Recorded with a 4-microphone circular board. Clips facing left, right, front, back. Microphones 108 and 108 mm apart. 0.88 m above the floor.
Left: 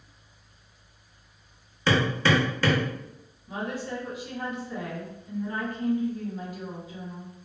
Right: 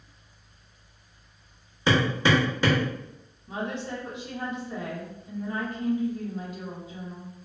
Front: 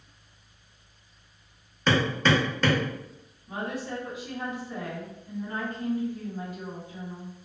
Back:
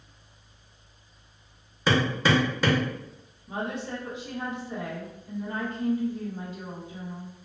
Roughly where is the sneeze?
I don't hear a sneeze.